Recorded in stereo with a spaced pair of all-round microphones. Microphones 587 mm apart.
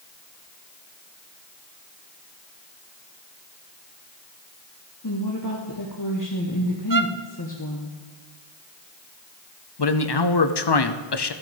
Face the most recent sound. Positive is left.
turn(degrees=45)  # may be behind; listen again after turning